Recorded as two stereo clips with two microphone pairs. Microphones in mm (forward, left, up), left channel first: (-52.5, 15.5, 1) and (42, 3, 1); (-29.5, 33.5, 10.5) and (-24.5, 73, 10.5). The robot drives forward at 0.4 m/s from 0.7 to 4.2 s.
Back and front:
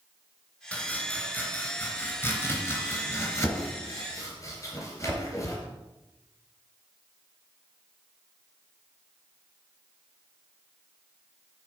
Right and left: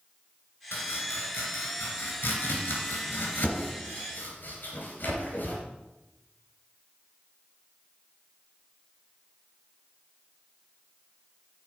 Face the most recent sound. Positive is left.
turn(degrees=-130)